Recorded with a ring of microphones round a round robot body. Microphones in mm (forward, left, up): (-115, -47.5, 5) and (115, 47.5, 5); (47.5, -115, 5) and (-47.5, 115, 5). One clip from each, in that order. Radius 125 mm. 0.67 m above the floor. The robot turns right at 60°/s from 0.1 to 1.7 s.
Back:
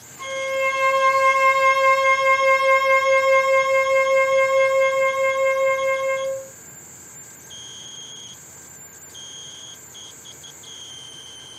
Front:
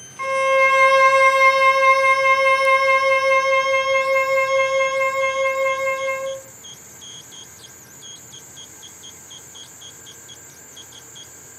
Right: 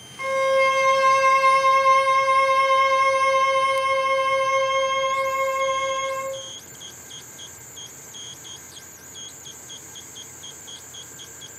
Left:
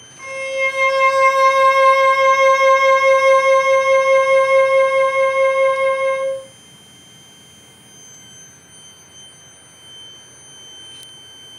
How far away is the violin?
About 0.5 m.